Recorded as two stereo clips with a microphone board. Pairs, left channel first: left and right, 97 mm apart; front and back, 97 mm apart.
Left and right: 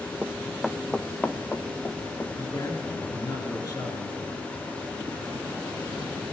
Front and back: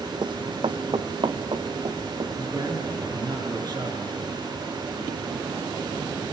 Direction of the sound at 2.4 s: 140° left.